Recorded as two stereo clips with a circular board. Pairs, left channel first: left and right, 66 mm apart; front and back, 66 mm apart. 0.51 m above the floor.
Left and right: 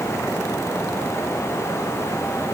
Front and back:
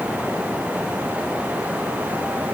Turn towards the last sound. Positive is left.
No sound to turn to.